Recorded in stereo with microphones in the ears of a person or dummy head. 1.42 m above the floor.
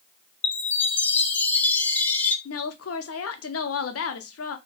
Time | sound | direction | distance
0.4 | a chime | 10° left (ahead or behind) | 0.6 m
2.5 | a woman speaking | 70° left (ahead or behind) | 0.6 m